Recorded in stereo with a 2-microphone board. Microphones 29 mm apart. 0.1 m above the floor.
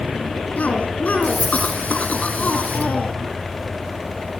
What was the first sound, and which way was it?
A cough, 60° left (ahead or behind).